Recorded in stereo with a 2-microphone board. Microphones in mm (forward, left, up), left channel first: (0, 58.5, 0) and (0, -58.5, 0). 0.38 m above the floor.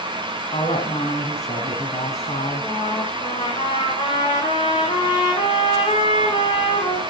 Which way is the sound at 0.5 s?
65° left (ahead or behind).